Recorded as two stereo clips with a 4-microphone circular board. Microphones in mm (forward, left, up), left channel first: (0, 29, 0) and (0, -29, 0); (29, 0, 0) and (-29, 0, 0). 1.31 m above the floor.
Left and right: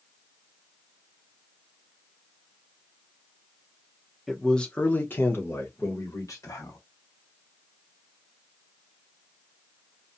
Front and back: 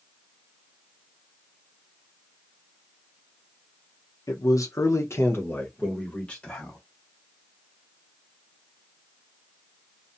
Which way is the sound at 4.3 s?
5° left.